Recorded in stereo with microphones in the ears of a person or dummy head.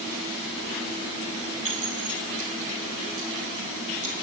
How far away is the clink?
About 2 m.